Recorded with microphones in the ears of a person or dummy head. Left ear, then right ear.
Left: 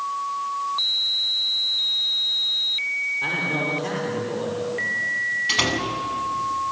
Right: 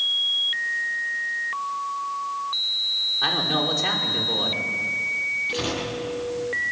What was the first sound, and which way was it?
A man speaking, 60° right (ahead or behind).